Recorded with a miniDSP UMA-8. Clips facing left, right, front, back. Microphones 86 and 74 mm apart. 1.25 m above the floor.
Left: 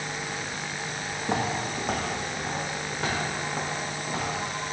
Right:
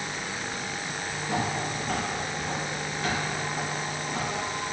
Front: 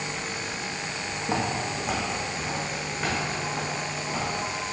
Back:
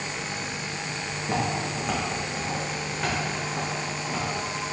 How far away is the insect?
About 1.8 m.